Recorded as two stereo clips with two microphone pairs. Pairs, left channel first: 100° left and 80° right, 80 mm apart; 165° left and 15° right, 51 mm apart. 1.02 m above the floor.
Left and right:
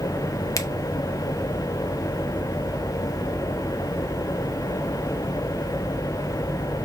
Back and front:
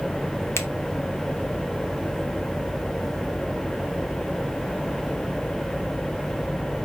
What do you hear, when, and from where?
0.6 s a finger snap: 140° left, 0.6 m